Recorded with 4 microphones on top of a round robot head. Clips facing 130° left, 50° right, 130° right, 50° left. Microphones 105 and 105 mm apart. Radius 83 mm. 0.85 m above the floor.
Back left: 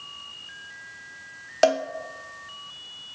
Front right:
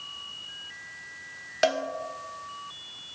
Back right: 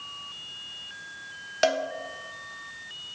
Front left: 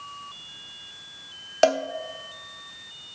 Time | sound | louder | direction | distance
1.6 | a cowbell | back left 5 dB, front left 4 dB | 90° left | 1.0 m